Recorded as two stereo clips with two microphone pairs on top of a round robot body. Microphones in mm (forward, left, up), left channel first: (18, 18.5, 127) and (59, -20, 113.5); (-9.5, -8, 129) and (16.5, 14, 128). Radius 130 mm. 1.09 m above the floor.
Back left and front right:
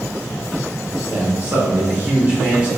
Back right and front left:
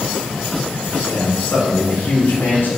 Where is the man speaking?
95° right, 4 m; by 2.7 s 115° right, 4 m.